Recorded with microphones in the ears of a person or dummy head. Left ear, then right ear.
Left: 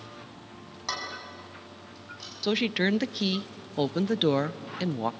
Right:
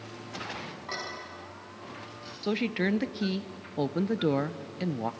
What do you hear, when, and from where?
0.9 s dishes clattering: 85° left, 7.5 m
2.4 s a woman speaking: 15° left (ahead or behind), 0.5 m